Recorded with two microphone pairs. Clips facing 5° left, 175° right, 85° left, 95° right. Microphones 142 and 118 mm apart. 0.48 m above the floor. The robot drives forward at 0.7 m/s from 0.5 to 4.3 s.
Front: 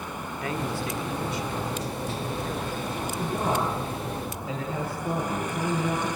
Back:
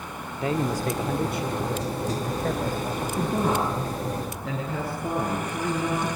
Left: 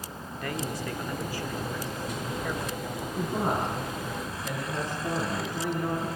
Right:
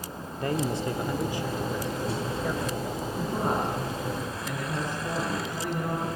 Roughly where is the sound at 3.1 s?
Behind.